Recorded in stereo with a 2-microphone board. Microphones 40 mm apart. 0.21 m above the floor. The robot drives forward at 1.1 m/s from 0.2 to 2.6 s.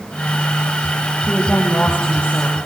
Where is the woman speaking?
20° left (ahead or behind), 7 m; by 2.6 s 15° left (ahead or behind), 8 m.